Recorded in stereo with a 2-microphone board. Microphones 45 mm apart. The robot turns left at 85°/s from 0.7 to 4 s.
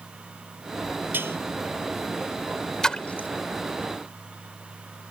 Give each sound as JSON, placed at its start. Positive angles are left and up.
{"t": 1.1, "sound": "dishes clattering", "side_deg": -50}
{"t": 2.8, "sound": "a splash", "side_deg": 10}